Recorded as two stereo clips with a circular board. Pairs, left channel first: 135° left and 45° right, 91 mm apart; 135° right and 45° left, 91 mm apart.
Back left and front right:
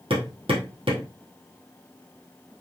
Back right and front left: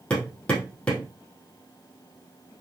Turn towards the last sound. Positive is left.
turn(degrees=-55)